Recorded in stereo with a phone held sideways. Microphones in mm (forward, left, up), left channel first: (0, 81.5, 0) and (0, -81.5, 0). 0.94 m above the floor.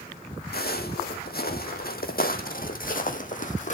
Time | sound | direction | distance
0.5 | footsteps | 70° left (ahead or behind) | 3 m